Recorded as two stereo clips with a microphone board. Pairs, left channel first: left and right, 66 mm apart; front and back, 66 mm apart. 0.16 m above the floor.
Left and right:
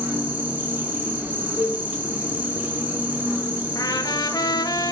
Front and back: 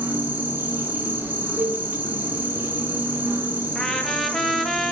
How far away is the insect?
About 2.5 m.